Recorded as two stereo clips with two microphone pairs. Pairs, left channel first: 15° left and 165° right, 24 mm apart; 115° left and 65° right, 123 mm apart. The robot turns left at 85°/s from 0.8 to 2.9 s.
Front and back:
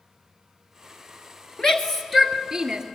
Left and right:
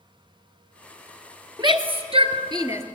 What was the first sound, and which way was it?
A shout, 30° right.